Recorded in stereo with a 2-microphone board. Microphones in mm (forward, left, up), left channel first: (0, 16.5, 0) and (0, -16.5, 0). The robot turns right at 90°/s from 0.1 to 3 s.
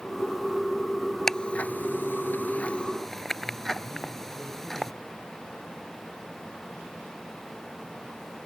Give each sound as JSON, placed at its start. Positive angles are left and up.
{"t": 1.3, "sound": "ticking", "side_deg": 15}